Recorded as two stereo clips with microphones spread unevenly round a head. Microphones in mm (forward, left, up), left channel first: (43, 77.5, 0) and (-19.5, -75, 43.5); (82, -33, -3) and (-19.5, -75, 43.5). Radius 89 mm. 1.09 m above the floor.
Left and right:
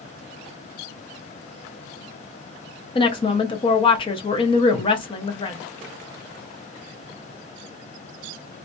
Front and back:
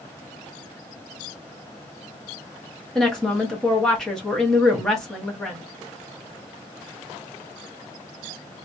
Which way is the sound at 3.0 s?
80° left.